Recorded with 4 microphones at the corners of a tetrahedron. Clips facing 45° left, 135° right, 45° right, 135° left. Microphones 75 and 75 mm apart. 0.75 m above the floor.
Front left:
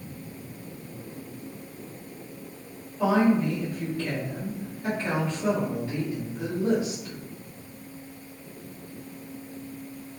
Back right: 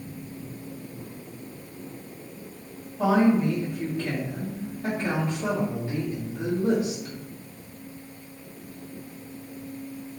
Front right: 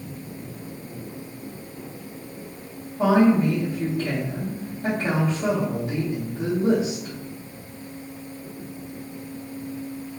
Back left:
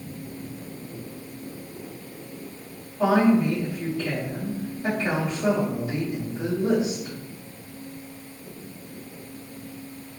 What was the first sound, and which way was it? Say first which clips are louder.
A woman speaking: back right 1 dB, front right 2 dB; 75° right.